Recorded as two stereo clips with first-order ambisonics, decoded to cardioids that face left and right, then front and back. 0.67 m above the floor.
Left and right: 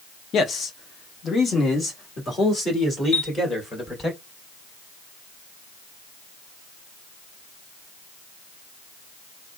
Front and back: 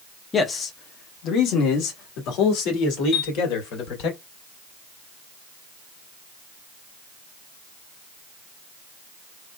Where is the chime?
30° left, 2.5 m.